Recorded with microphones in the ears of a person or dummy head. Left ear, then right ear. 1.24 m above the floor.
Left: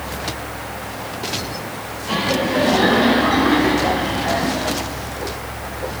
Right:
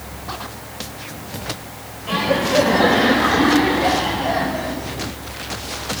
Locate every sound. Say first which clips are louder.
2.1 s laughter: right 1 dB; 35° right (ahead or behind), 3.5 m; by 4.8 s 10° right (ahead or behind), 4.5 m